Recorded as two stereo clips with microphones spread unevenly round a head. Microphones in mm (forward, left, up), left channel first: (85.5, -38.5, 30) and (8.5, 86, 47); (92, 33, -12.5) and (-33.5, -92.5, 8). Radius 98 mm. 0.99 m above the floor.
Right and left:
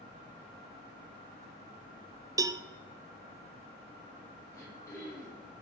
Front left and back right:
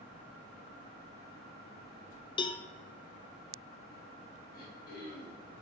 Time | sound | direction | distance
2.4 | a cowbell | 65° left | 0.5 m
4.5 | throat clearing | 10° left | 3.5 m